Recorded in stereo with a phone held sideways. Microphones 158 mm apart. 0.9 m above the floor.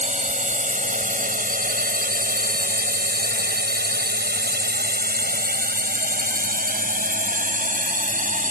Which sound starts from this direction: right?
A drone, at 0.0 s.